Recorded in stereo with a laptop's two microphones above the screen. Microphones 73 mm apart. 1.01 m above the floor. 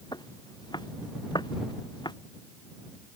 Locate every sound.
0.1 s footsteps: 80° left; by 2.1 s 85° left